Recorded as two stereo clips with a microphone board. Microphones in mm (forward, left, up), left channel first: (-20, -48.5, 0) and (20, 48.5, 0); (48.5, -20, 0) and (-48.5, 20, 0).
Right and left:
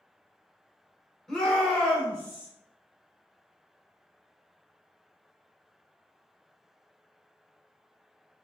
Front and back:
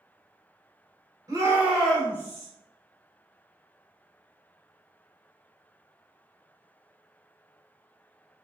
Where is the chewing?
No chewing in this recording.